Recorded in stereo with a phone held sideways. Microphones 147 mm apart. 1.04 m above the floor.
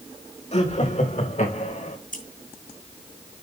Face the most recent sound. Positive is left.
turn(degrees=70)  # may be behind; listen again after turning